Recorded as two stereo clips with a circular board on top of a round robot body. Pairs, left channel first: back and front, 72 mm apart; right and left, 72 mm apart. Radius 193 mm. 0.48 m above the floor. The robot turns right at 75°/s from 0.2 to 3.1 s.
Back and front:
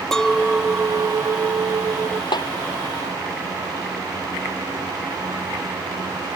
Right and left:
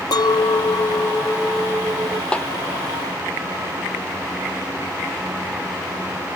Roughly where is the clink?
Right.